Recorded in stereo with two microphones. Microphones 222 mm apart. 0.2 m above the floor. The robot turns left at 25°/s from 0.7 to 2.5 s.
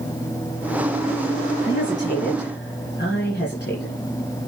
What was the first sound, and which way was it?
A woman speaking, 60° left (ahead or behind).